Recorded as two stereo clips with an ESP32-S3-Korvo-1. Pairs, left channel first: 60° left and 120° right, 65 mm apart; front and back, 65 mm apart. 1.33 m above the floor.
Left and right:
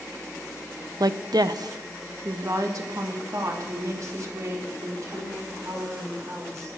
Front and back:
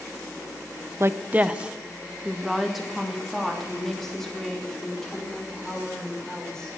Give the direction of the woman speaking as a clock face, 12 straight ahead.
5 o'clock.